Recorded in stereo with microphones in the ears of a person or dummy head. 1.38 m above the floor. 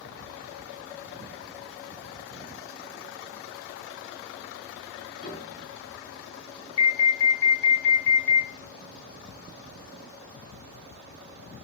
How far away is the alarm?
About 3 m.